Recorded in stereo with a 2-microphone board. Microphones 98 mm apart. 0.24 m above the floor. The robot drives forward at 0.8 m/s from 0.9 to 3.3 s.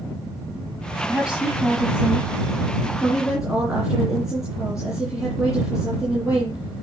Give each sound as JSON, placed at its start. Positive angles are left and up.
{"t": 1.1, "sound": "a woman speaking", "side_deg": -10, "distance_m": 1.5}